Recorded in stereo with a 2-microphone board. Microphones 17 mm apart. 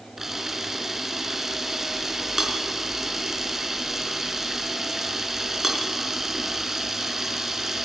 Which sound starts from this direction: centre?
A camera shutter, at 0.2 s.